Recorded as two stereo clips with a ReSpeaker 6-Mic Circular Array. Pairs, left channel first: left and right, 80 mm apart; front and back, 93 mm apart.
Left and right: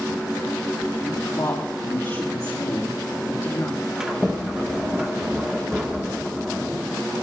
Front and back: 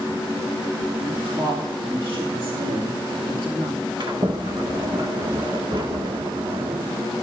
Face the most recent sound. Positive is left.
turn(degrees=-165)